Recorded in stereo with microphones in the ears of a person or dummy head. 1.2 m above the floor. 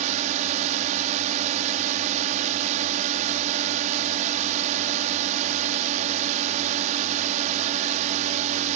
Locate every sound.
0.0 s a drone: 45° right (ahead or behind)